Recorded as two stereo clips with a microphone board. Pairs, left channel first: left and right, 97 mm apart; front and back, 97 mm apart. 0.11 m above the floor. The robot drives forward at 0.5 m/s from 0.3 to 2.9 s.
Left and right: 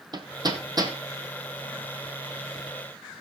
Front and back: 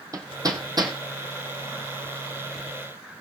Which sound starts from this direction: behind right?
Hammering, at 0.1 s.